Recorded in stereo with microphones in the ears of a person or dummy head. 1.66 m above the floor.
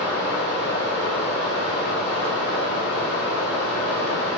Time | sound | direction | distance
0.0 | running water | 55° left (ahead or behind) | 1.3 m